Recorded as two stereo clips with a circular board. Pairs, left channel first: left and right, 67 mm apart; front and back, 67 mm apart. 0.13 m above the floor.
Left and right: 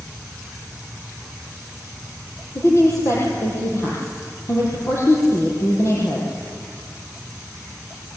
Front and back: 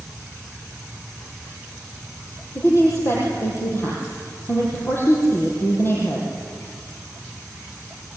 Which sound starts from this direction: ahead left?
A woman speaking, at 2.5 s.